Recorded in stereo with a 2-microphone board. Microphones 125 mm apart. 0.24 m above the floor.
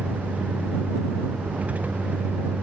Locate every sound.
0.0 s a vehicle: 10° right (ahead or behind)